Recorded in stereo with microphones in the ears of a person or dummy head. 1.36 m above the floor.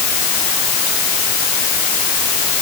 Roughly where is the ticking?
I don't hear ticking.